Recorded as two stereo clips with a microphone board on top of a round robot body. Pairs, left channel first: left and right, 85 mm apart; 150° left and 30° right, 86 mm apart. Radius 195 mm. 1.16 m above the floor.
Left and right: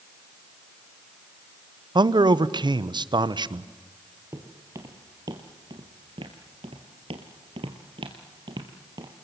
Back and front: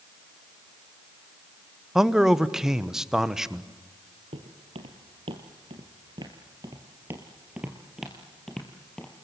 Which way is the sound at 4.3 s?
30° right.